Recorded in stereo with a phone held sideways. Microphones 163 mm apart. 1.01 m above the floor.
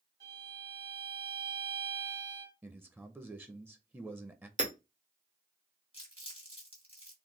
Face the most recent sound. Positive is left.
turn(degrees=35)  # may be behind; listen again after turning